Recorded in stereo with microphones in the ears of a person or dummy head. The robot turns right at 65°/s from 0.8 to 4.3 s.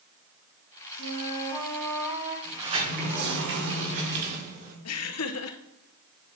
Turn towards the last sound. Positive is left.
turn(degrees=80)